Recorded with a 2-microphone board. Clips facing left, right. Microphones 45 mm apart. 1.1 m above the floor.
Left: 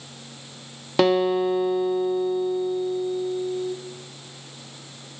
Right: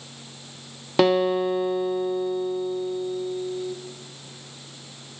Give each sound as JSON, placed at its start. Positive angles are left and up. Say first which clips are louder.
{"t": 1.0, "sound": "a guitar", "louder": "even", "side_deg": 0, "distance_m": 1.0}